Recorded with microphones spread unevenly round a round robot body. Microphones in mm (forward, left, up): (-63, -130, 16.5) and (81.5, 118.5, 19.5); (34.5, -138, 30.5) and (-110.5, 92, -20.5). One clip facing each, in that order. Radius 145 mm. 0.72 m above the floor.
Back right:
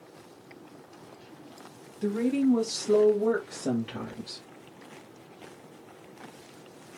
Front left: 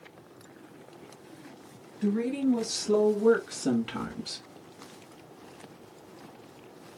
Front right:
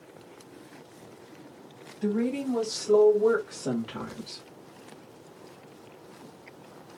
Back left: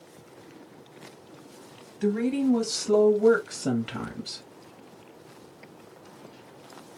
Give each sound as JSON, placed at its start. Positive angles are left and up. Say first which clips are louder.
{"t": 2.0, "sound": "a woman speaking", "louder": "back right 2 dB, back left 3 dB", "azimuth_deg": 165, "distance_m": 2.0}